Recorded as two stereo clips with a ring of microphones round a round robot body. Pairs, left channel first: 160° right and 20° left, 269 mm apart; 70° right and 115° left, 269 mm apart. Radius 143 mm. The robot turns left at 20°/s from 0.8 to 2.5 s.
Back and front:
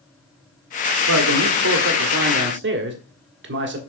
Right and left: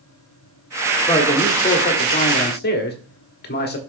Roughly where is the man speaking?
Ahead.